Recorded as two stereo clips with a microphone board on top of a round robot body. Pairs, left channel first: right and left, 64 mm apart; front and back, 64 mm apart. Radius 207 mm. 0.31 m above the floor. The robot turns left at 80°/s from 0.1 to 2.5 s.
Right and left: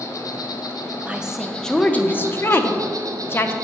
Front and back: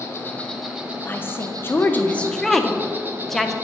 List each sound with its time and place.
0.0 s an insect: 50° right, 1.2 m; by 3.6 s 115° left, 1.2 m
1.1 s a woman speaking: 30° left, 0.9 m; by 3.5 s 85° right, 0.9 m